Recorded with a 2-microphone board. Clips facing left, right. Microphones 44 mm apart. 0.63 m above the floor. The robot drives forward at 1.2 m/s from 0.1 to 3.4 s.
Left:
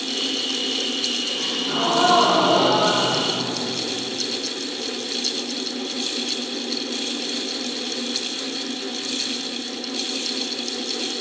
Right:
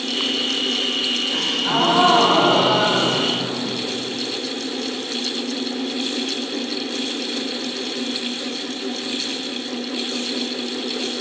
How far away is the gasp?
About 1.9 m.